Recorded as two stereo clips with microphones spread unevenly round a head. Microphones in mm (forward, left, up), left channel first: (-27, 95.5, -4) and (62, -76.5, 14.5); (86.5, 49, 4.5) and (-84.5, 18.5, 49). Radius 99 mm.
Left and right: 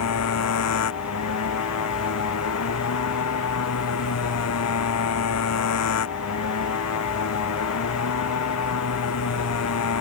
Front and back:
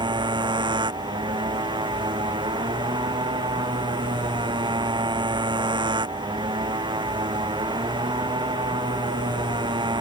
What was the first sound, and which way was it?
A motorcycle, 125° left.